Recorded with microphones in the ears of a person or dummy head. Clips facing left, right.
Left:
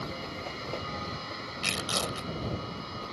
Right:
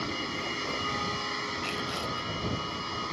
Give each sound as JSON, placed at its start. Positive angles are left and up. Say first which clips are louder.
{"t": 0.0, "sound": "a machine running", "louder": "right 3 dB", "side_deg": -65}
{"t": 1.6, "sound": "tearing paper", "louder": "left 3 dB", "side_deg": 80}